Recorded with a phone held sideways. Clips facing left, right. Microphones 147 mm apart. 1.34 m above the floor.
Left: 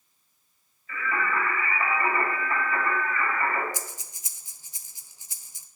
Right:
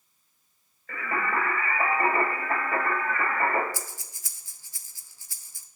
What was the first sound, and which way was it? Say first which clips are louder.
Singing: even; 60° right (ahead or behind).